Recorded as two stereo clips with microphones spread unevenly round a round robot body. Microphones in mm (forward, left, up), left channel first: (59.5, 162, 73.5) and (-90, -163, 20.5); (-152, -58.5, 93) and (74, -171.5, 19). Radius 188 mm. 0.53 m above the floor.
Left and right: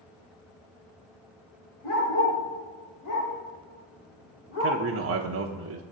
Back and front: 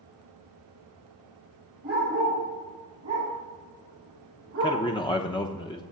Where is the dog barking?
30° left, 5 m; by 4.8 s 15° left, 8.5 m.